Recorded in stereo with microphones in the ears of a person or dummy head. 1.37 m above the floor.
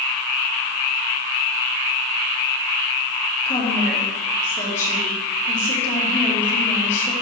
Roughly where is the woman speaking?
Centre.